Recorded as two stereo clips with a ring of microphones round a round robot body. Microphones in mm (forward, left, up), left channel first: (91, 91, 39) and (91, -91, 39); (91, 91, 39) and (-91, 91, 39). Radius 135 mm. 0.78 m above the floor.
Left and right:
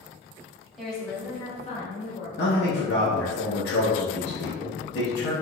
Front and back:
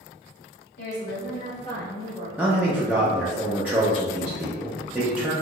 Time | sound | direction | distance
0.8 | a woman speaking | straight ahead | 1.9 m
2.4 | a man speaking | 100° left | 0.7 m